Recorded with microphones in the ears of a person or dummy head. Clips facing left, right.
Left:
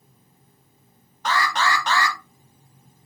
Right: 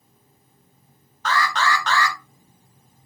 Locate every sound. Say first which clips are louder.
1.2 s an alarm: right 1 dB; 10° left (ahead or behind), 0.8 m